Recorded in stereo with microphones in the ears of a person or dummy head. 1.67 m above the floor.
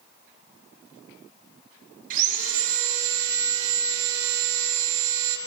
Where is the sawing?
55° right (ahead or behind), 6.5 m.